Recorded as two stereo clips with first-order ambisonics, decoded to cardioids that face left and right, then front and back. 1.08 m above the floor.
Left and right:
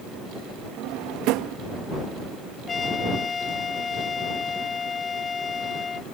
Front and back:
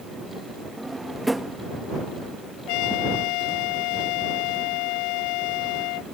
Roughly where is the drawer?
Right.